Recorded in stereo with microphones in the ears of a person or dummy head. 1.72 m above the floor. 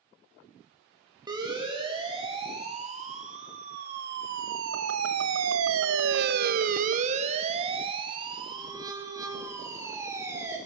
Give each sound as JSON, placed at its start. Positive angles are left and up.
{"t": 1.3, "sound": "a siren", "side_deg": -20, "distance_m": 4.0}